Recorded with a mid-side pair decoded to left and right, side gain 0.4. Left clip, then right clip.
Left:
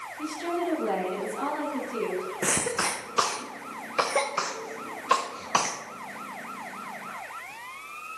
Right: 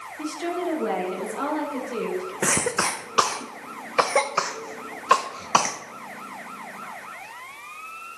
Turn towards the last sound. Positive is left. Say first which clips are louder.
# right 4 dB
turn(degrees=-35)